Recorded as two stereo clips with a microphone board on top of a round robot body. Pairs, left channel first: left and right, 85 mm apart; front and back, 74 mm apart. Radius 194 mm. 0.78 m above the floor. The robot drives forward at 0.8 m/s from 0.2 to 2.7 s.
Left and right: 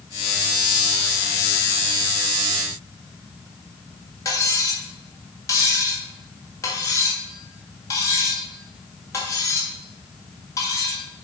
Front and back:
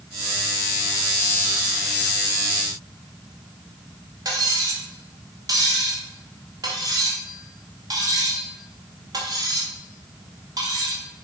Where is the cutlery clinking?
145° left, 1.9 m.